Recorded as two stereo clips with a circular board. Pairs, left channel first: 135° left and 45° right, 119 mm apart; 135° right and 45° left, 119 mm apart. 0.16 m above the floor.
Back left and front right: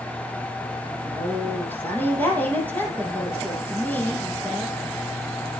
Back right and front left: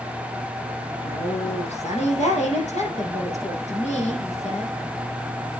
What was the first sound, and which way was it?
A woman speaking, 150° right.